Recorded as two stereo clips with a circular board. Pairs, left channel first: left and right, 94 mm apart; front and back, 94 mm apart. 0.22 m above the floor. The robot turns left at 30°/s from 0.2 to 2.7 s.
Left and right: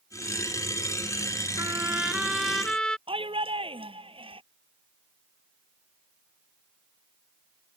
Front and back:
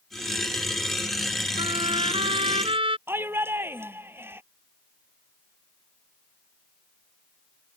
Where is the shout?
110° right.